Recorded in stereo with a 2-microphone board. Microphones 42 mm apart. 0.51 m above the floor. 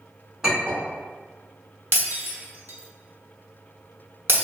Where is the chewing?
No chewing in this recording.